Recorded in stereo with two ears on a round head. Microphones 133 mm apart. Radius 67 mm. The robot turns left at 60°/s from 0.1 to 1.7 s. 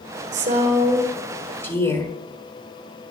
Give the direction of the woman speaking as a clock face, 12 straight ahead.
4 o'clock.